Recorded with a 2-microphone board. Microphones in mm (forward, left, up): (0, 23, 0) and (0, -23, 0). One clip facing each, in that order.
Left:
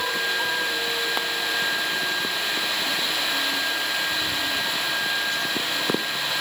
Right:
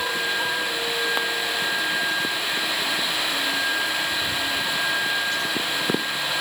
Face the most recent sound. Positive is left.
No sound to turn to.